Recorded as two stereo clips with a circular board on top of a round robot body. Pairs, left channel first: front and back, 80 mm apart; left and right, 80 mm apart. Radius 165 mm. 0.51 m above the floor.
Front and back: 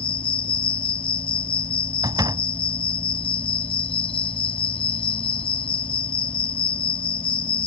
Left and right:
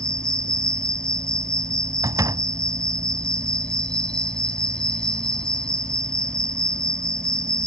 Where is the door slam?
140° right.